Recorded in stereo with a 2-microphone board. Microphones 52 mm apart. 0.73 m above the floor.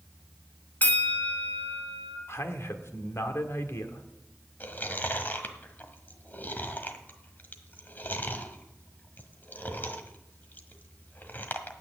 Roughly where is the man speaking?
Left.